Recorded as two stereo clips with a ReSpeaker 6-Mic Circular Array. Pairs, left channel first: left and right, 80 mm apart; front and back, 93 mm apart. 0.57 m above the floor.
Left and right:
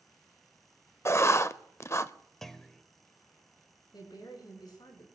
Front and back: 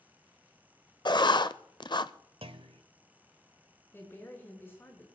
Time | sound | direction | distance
1.1 | writing | 35° left | 0.6 m
2.4 | a clunk | 175° left | 0.8 m
3.9 | a woman speaking | 65° left | 5.5 m